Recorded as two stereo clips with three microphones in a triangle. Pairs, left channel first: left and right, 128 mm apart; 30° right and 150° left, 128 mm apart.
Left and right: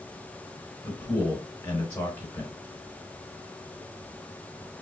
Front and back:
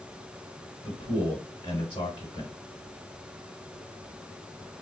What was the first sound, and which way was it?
A man speaking, 30° left.